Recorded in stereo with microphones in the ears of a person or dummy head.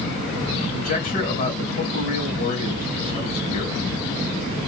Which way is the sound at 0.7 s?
45° left (ahead or behind).